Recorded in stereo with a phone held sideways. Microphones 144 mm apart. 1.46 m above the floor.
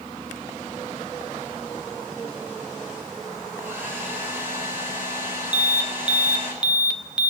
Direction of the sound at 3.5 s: 15° right (ahead or behind).